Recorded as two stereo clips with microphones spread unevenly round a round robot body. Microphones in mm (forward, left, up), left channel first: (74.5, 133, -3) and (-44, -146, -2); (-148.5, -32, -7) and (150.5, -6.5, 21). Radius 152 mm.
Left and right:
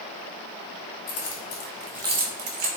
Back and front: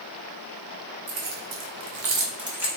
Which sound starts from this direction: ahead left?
Keys jangling, at 1.1 s.